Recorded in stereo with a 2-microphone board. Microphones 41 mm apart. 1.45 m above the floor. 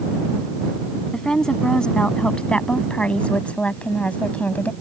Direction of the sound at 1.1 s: 20° left (ahead or behind).